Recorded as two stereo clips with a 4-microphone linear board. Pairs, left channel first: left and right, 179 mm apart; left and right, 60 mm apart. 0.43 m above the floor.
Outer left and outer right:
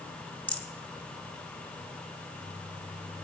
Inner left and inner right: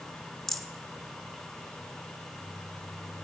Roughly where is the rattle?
Centre.